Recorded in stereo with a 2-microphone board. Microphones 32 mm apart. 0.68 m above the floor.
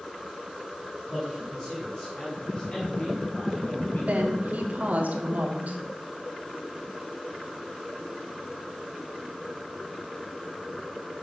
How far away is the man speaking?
About 3.5 m.